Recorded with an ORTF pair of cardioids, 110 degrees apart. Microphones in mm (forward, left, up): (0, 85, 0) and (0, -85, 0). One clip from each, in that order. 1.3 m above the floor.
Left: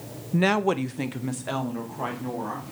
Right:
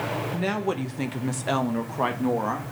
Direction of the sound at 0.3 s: 45° left.